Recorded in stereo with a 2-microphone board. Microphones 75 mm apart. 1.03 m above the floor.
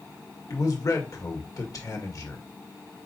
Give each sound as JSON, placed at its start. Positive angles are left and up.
{"t": 0.5, "sound": "a man speaking", "side_deg": 50, "distance_m": 1.4}